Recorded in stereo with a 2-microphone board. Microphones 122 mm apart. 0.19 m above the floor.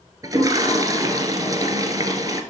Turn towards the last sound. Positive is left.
turn(degrees=-30)  # may be behind; listen again after turning